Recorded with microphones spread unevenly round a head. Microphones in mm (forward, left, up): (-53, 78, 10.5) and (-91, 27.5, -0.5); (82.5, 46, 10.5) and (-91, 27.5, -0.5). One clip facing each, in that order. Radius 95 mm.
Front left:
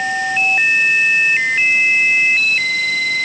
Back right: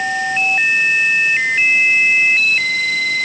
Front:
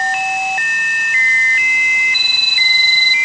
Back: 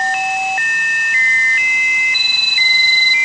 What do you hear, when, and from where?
Only background noise.